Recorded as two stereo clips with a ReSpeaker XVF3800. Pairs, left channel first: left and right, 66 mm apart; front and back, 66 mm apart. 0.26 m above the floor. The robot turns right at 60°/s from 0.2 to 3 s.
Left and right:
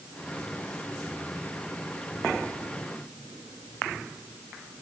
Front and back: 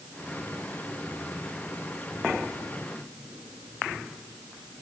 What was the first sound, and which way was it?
Only background noise.